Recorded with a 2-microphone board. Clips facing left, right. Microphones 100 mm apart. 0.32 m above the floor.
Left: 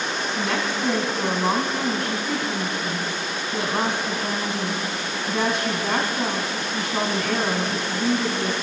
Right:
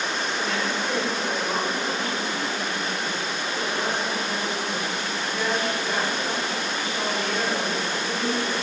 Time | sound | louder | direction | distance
0.3 | a woman speaking | left 4 dB | 70° left (ahead or behind) | 2.5 m